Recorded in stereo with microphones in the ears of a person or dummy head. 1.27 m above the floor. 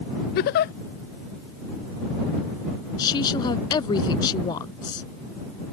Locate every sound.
0.3 s a giggle: 45° left (ahead or behind)
3.0 s a woman speaking: 30° left (ahead or behind)